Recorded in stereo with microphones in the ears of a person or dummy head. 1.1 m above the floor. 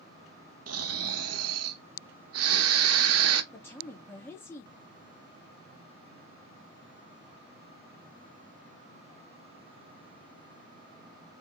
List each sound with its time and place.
0.7 s snoring: 75° right (ahead or behind), 0.8 m
3.5 s a woman speaking: 10° left (ahead or behind), 1.5 m